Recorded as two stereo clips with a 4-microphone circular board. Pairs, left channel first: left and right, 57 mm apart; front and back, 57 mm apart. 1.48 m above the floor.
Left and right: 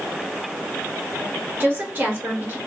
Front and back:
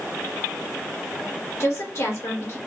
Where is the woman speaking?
35° right, 1.5 m.